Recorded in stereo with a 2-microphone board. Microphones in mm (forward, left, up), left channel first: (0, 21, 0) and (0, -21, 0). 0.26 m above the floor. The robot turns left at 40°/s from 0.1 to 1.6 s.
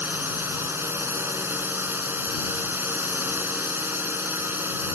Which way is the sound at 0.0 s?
55° right.